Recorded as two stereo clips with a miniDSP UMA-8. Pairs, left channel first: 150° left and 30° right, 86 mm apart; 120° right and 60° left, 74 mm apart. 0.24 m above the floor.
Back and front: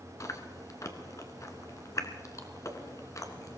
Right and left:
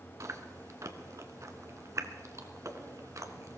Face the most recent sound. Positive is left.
turn(degrees=100)